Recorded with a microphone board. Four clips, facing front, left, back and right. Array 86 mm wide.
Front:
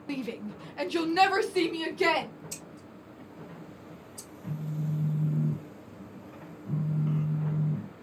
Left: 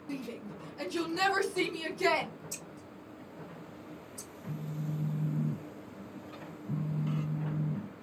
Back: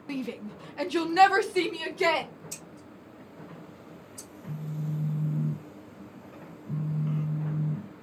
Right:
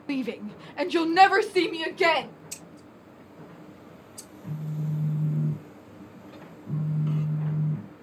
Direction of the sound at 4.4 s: 55° right.